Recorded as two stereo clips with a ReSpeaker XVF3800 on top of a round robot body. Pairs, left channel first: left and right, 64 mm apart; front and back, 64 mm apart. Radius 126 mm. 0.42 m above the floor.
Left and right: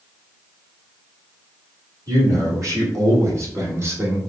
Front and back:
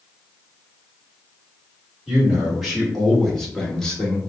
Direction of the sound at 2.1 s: 95° right.